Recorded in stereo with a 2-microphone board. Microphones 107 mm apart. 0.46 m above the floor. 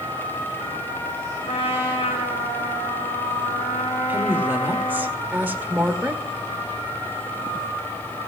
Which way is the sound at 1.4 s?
60° left (ahead or behind).